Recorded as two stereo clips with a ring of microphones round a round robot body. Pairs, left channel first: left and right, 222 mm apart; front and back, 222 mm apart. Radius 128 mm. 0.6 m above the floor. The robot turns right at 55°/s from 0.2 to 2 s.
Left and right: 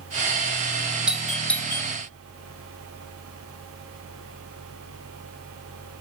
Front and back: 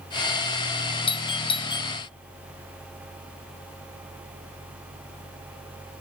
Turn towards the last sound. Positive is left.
turn(degrees=40)